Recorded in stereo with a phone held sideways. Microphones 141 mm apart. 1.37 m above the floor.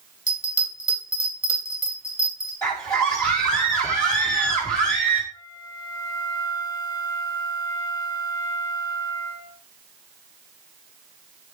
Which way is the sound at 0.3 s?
55° left (ahead or behind).